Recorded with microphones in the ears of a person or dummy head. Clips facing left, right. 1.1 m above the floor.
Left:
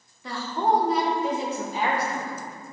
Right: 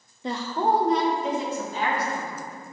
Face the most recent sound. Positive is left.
turn(degrees=15)  # may be behind; listen again after turning